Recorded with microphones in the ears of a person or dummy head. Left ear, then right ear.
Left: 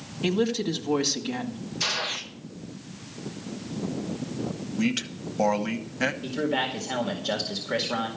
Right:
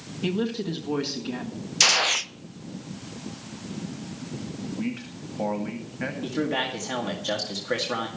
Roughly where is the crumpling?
I don't hear crumpling.